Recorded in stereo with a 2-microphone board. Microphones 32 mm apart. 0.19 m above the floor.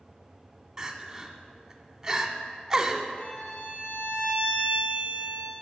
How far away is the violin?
About 3.5 m.